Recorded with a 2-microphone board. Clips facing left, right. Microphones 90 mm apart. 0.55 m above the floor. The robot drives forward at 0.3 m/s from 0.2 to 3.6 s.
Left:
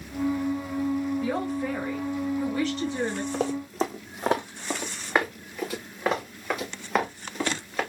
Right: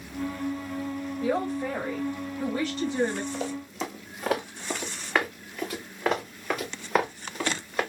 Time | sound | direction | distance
1.2 | a man speaking | 20° right (ahead or behind) | 2.5 m
3.3 | running footsteps | 55° left (ahead or behind) | 1.4 m